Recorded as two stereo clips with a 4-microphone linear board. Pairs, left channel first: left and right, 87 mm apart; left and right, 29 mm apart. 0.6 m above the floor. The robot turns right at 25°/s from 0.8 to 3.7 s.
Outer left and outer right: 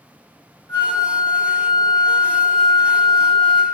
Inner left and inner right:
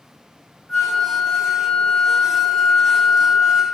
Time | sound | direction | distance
0.7 | a flute | 80° left | 0.9 m